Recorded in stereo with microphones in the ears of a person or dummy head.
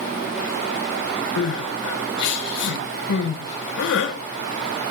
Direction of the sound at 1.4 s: 75° left (ahead or behind).